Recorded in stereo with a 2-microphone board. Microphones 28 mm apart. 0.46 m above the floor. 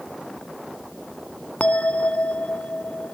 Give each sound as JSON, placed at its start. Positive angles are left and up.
{"t": 1.6, "sound": "a bell", "side_deg": 60, "distance_m": 0.5}